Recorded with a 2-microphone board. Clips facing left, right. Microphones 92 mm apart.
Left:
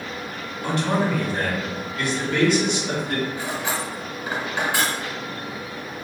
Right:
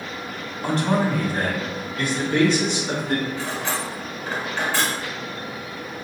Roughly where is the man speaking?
Right.